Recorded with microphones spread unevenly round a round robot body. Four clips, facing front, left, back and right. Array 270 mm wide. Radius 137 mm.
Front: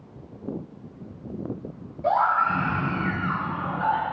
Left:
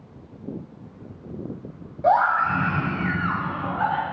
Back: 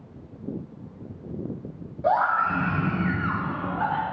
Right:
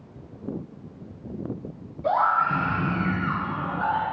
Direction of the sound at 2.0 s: 65° left.